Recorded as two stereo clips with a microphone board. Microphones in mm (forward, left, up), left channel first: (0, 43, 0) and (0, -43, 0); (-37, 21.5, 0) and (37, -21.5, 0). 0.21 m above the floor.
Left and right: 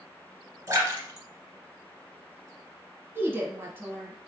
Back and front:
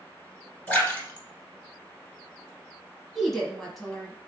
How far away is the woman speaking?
About 1.1 m.